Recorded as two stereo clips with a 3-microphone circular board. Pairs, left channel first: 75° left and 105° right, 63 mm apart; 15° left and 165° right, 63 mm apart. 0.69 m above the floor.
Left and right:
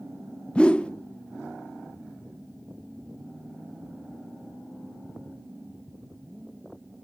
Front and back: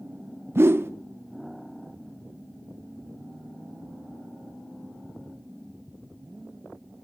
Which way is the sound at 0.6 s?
145° left.